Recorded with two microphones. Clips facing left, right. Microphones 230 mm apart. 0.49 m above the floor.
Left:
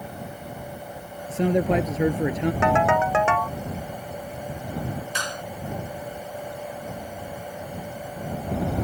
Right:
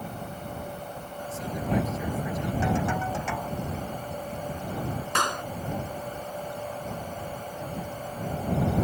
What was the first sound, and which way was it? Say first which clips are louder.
A man speaking: left 8 dB; 85° left.